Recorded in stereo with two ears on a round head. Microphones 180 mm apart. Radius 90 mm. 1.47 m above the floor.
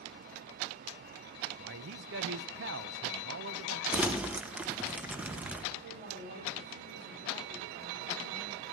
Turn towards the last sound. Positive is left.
turn(degrees=-55)  # may be behind; listen again after turning